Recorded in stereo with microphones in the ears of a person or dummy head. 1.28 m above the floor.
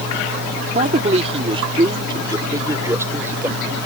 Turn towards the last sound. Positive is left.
turn(degrees=-10)  # may be behind; listen again after turning